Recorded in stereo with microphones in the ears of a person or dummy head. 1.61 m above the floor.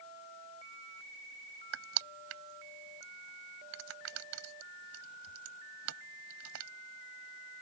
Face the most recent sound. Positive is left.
turn(degrees=-75)  # may be behind; listen again after turning